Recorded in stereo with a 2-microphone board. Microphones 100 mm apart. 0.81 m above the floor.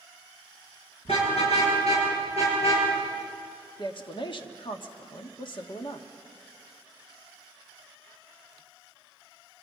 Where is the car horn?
85° left, 6.5 m; by 2.9 s 80° left, 8.5 m.